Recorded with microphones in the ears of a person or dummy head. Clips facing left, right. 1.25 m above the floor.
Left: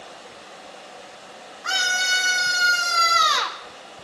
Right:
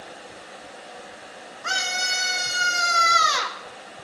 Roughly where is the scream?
Right.